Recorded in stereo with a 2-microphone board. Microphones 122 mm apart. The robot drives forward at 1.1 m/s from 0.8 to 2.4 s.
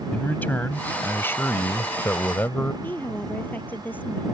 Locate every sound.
0.1 s a man speaking: 15° left (ahead or behind); by 2.7 s 20° left (ahead or behind)
2.8 s a woman speaking: 15° left (ahead or behind)